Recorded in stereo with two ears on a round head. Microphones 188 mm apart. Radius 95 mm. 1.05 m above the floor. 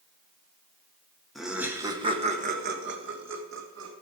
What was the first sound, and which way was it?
Laughter, centre (ahead or behind).